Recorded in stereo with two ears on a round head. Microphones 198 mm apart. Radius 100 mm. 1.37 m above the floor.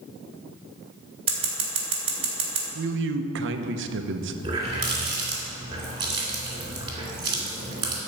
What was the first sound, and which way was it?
Scissors, 25° right (ahead or behind).